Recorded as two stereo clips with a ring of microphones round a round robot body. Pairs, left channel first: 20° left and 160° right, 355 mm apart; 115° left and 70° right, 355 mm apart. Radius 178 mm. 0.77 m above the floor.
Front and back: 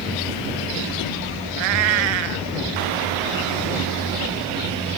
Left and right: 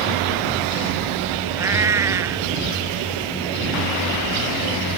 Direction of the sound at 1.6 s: 150° right.